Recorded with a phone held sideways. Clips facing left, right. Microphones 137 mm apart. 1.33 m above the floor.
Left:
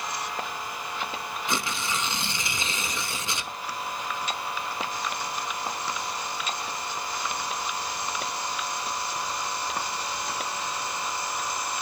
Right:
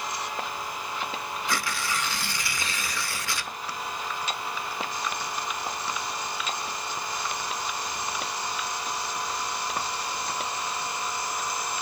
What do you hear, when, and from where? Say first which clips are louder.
1.5 s tearing paper: left 1 dB; 20° left (ahead or behind), 1.1 m